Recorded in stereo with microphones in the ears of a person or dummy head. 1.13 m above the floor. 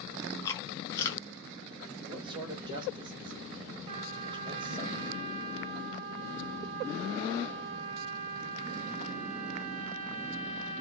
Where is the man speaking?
30° right (ahead or behind), 1.3 m.